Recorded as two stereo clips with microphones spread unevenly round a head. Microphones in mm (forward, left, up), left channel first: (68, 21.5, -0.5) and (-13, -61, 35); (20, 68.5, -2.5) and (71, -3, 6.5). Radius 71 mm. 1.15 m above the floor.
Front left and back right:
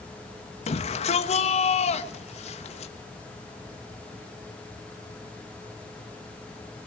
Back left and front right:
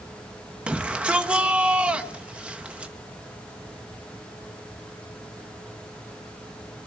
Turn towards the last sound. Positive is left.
turn(degrees=25)